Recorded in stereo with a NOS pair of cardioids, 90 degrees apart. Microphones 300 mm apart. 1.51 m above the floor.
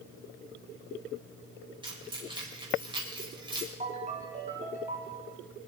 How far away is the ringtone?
About 4.5 m.